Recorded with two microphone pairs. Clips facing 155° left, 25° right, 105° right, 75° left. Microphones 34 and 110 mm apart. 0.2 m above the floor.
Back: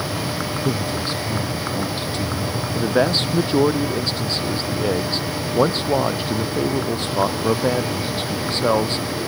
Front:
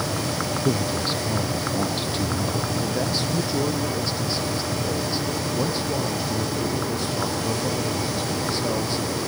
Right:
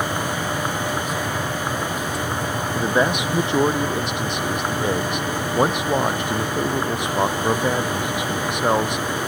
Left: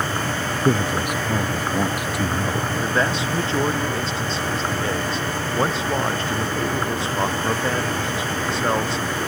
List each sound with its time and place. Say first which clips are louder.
0.7 s a man speaking: even, left 4 dB; 55° left
2.8 s a man speaking: back 6 dB, right 5 dB; 175° right